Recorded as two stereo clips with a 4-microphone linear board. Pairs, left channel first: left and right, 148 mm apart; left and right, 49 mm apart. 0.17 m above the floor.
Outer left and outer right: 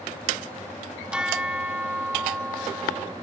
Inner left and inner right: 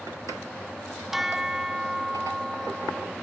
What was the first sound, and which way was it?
A bell, 5° right (ahead or behind).